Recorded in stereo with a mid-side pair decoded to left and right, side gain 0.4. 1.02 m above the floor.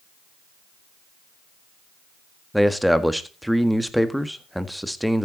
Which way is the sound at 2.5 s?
Straight ahead.